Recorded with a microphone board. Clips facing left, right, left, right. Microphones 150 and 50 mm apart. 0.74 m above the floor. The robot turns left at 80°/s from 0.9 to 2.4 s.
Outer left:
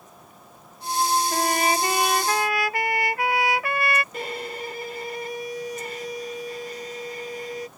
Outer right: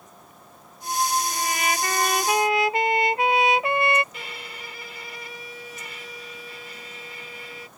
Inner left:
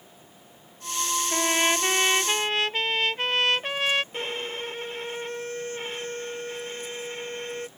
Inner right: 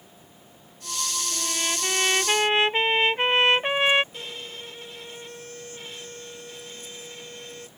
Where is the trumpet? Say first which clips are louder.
Outer left 4 dB, inner left 8 dB; 65° left; by 4.0 s 20° right.